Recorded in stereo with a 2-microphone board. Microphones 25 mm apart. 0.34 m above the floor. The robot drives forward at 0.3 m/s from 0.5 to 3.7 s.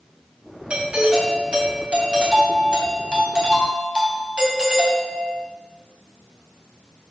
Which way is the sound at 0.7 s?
50° right (ahead or behind).